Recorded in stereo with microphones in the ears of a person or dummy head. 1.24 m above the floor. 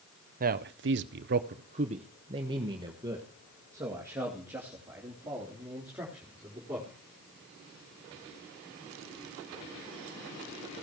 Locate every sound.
0.4 s a man speaking: 40° right (ahead or behind), 0.7 m; by 6.9 s 5° right (ahead or behind), 3.5 m